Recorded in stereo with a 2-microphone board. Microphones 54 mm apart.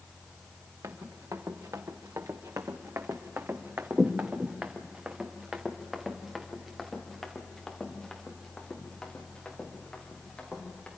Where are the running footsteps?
75° right (ahead or behind), 2 m; by 10.9 s 15° left (ahead or behind), 4.5 m.